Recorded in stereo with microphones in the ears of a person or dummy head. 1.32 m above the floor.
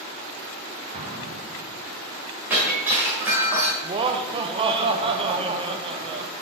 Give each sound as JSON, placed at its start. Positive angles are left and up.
{"t": 0.9, "sound": "an explosion", "side_deg": -30, "distance_m": 1.9}
{"t": 2.5, "sound": "breaking glass", "side_deg": -5, "distance_m": 1.4}
{"t": 3.8, "sound": "laughter", "side_deg": -25, "distance_m": 0.6}